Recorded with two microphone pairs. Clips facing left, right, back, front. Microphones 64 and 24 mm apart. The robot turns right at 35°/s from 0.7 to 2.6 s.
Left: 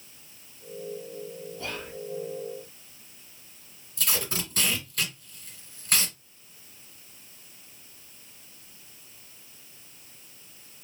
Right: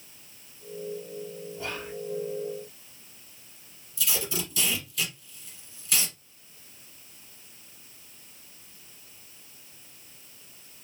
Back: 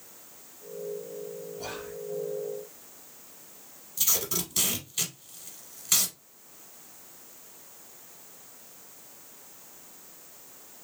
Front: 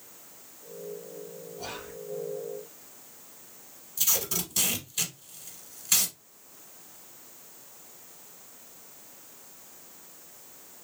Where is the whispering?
85° right, 1.1 m; by 1.9 s 70° right, 1.1 m.